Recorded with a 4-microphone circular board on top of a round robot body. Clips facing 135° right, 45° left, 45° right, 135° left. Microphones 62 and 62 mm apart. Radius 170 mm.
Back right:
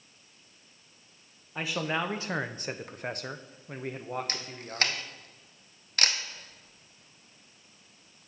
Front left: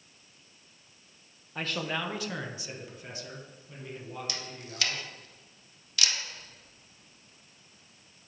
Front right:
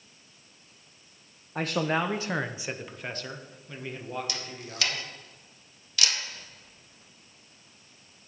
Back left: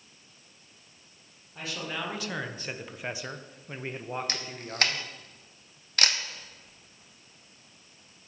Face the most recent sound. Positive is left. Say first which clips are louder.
# back right 2 dB, back left 2 dB
turn(degrees=180)